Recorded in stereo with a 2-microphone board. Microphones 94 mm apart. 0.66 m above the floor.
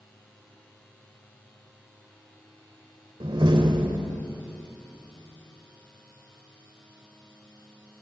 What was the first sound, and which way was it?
A door slam, 60° right (ahead or behind).